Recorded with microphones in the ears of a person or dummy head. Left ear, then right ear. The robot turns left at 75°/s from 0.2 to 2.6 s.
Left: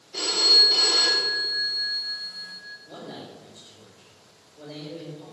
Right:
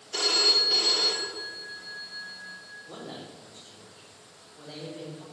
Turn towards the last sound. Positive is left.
turn(degrees=-65)  # may be behind; listen again after turning